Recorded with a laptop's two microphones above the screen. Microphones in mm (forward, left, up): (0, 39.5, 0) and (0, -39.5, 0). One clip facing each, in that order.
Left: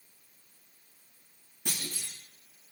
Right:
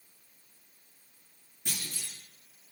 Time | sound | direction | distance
1.6 | a clunk | 85° left | 7 m